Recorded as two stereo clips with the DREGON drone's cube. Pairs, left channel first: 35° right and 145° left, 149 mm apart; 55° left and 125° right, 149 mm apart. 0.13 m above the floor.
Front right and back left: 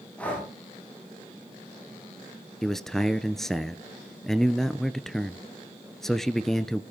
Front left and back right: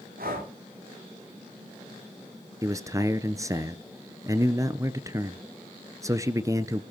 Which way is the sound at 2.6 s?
115° right.